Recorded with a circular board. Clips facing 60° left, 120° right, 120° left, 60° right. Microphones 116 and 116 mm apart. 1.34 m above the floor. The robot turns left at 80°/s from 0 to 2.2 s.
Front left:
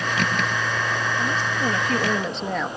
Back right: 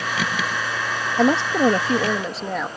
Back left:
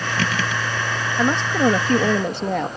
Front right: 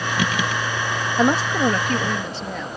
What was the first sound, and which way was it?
A woman speaking, 125° right.